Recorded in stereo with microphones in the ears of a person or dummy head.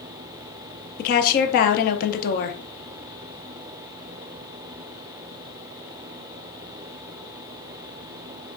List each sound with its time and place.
1.0 s a woman speaking: 50° left (ahead or behind), 0.6 m